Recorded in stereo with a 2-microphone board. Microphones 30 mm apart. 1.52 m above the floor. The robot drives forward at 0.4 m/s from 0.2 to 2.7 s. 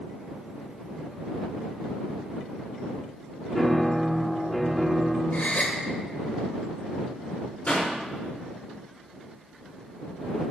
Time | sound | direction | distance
3.5 | a piano | centre (ahead or behind) | 1.4 m
5.3 | a gasp | 70° left (ahead or behind) | 1.5 m
7.7 | a pop | 45° left (ahead or behind) | 4.5 m